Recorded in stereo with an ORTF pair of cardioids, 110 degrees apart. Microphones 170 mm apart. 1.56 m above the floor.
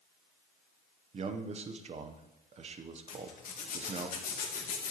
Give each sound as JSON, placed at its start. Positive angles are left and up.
{"t": 1.1, "sound": "a man speaking", "azimuth_deg": -40, "distance_m": 1.0}
{"t": 3.1, "sound": "a zipper", "azimuth_deg": 50, "distance_m": 1.8}